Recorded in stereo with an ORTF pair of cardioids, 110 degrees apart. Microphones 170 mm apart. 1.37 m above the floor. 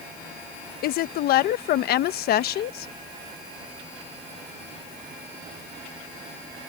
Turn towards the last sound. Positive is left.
turn(degrees=70)